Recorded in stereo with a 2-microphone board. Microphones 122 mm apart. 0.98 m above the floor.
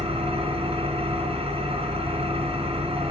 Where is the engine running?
55° right (ahead or behind), 3 m.